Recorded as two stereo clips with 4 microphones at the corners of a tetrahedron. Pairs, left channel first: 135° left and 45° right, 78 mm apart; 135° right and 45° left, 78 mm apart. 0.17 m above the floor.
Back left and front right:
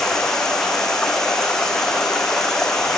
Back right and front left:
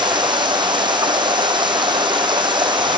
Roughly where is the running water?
Ahead left.